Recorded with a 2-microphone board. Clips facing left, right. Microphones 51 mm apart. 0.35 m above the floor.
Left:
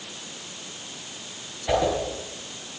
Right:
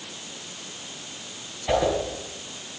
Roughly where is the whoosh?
Centre.